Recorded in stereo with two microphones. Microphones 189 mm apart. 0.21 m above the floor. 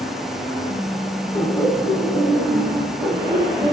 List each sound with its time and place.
1.3 s laughter: 20° left (ahead or behind), 3 m; by 3.7 s 5° right (ahead or behind), 1.7 m